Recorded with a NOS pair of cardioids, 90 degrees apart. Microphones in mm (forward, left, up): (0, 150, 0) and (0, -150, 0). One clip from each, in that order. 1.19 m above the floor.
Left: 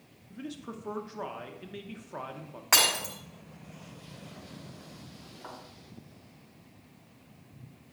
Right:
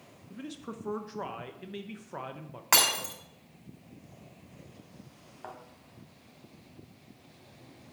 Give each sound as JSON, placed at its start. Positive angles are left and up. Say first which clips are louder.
{"t": 0.3, "sound": "a man speaking", "louder": "left 1 dB", "azimuth_deg": -10, "distance_m": 0.7}
{"t": 2.7, "sound": "breaking glass", "louder": "left 1 dB", "azimuth_deg": -25, "distance_m": 4.0}
{"t": 5.4, "sound": "a thud", "louder": "right 1 dB", "azimuth_deg": -40, "distance_m": 3.0}